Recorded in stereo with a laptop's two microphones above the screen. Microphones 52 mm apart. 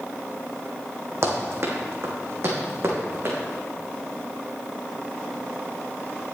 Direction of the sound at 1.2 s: 60° right (ahead or behind).